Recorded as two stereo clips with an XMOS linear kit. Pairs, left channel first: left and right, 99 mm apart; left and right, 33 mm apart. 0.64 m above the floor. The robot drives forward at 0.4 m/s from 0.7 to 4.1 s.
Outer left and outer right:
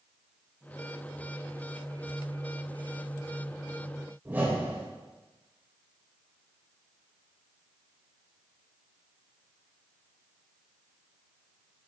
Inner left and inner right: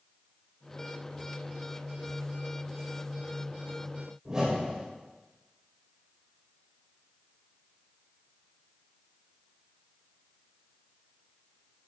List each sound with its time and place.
4.2 s a whoosh: 20° right (ahead or behind), 2.5 m